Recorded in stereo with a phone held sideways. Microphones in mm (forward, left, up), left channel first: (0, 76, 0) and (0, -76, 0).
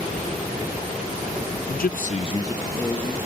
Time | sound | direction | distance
1.7 | a man speaking | 65° left (ahead or behind) | 0.6 m